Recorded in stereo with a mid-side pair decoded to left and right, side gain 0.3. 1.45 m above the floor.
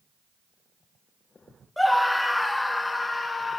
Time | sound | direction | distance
1.8 | a scream | 15° left | 1.2 m